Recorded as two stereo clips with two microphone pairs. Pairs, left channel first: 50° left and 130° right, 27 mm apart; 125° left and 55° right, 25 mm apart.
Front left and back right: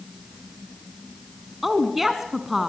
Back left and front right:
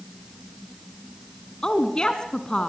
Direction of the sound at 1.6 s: 150° left.